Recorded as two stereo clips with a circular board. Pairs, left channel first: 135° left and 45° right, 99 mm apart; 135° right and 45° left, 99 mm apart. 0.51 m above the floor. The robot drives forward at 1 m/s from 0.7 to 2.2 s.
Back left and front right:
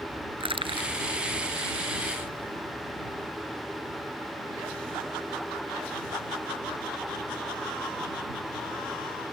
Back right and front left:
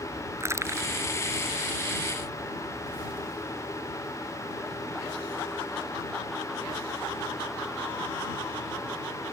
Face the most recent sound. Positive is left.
turn(degrees=-25)